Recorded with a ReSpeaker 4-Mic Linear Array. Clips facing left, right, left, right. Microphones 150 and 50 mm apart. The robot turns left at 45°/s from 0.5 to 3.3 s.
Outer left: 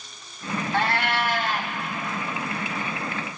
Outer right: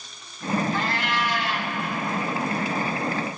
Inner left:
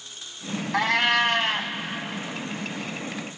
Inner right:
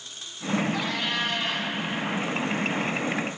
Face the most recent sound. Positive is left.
turn(degrees=-30)